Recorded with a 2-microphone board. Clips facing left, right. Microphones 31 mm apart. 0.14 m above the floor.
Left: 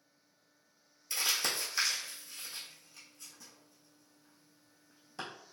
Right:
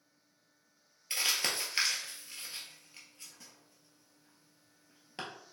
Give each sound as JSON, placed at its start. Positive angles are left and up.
{"t": 1.1, "sound": "crumpling", "side_deg": -40, "distance_m": 1.2}